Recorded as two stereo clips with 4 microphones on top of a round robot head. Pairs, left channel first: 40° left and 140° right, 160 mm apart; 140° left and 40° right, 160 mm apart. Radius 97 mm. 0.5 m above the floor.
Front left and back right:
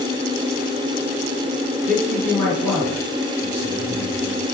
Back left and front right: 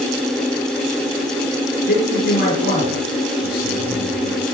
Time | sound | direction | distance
1.9 | a man speaking | 120° left | 8 m